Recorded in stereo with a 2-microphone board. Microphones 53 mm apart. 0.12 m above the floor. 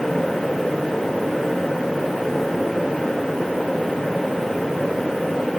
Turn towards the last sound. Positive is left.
No sound to turn to.